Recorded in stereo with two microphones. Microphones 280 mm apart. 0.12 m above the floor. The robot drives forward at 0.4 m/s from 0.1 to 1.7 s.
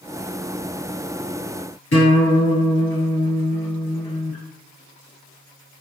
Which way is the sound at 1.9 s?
50° left (ahead or behind).